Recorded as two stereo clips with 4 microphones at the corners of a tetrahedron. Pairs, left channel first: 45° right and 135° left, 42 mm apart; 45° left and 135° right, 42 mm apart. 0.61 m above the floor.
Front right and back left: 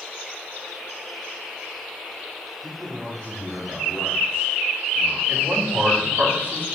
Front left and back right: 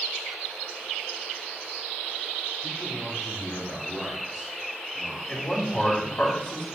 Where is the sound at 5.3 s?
110° left, 4 m.